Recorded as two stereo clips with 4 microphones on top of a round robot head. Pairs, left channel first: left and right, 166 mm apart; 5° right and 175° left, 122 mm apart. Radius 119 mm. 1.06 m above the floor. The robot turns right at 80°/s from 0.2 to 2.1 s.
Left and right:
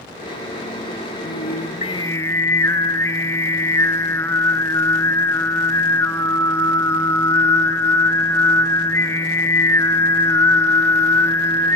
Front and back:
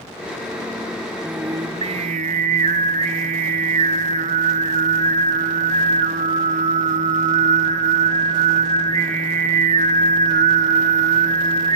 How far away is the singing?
About 0.6 m.